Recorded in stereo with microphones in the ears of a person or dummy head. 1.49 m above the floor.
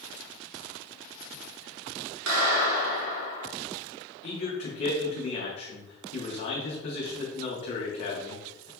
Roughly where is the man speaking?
Left.